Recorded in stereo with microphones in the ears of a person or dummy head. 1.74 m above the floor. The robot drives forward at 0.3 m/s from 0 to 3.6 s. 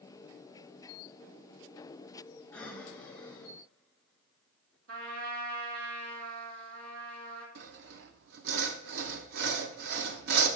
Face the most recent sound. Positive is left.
turn(degrees=-60)  # may be behind; listen again after turning